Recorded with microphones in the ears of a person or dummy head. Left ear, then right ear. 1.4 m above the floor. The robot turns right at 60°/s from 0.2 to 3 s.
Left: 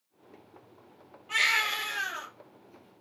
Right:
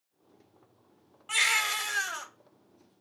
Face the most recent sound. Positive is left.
turn(degrees=-40)